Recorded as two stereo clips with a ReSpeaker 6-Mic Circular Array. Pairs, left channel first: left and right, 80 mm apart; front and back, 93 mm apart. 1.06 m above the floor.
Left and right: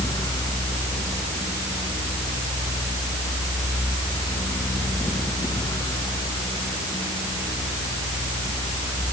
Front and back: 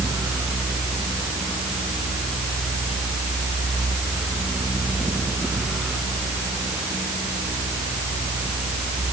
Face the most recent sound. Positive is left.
No sound to turn to.